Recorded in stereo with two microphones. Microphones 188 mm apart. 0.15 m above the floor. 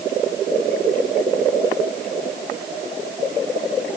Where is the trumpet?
I don't hear a trumpet.